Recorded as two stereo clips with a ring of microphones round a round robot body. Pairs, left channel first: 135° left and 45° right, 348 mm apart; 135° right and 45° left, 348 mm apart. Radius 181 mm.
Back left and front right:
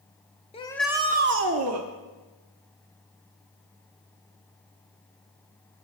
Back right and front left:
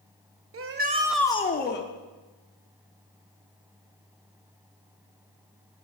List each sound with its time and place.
0.5 s a shout: 70° left, 0.8 m; by 1.9 s 80° right, 1.1 m